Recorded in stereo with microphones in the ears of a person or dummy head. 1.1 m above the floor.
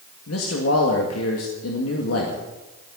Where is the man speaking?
70° left (ahead or behind), 2 m.